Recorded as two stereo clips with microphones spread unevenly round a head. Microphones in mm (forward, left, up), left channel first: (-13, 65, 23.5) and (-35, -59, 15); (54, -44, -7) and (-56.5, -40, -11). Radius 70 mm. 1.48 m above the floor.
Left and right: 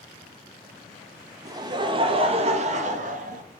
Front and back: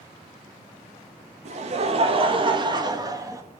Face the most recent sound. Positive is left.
turn(degrees=-120)